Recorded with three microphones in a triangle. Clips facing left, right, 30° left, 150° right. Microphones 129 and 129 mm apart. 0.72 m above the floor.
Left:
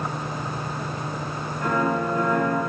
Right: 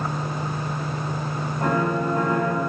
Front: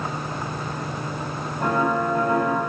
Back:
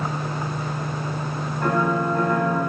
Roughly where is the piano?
Ahead right.